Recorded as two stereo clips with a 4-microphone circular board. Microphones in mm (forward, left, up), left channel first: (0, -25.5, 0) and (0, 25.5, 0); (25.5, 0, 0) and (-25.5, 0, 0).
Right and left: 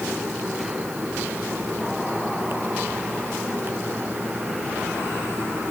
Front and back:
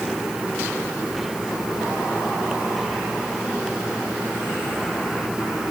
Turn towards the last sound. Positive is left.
No sound to turn to.